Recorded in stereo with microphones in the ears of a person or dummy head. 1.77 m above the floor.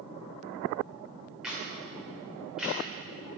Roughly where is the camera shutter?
Centre.